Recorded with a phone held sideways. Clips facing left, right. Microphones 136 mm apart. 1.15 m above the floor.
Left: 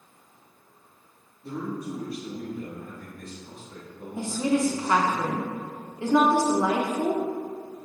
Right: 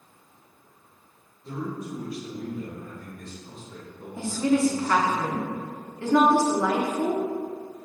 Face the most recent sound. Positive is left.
turn(degrees=15)  # may be behind; listen again after turning